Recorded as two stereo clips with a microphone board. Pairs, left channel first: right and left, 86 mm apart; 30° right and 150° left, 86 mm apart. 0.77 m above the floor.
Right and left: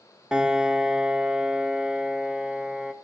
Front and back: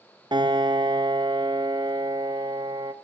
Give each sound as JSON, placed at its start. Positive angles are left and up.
{"t": 0.3, "sound": "a piano", "azimuth_deg": 170, "distance_m": 0.5}